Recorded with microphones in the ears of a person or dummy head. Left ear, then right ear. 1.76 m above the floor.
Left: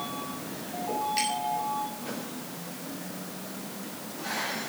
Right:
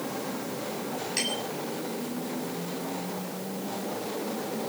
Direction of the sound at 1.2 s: 20° right (ahead or behind).